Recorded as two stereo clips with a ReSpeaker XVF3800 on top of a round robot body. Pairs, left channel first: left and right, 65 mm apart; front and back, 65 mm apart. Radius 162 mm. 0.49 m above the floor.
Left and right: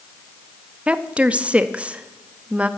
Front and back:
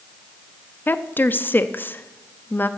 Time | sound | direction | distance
0.9 | a woman speaking | 30° right | 0.8 m